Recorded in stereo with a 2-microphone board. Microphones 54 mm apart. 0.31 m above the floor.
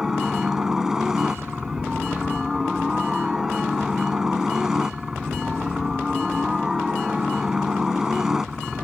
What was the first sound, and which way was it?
A helicopter, 10° right (ahead or behind).